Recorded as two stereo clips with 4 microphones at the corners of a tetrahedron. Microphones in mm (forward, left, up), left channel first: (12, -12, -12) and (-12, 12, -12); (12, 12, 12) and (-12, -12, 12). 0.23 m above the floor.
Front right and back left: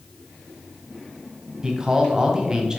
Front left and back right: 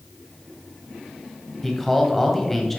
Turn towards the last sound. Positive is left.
turn(degrees=115)